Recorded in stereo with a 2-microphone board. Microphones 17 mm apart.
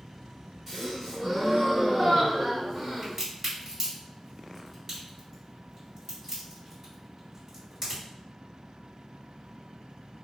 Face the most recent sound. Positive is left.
turn(degrees=-25)  # may be behind; listen again after turning